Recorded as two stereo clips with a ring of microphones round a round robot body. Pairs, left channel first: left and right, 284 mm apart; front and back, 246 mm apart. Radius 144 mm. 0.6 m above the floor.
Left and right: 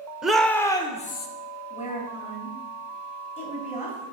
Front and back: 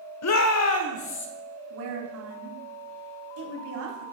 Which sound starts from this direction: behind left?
A woman speaking, at 1.7 s.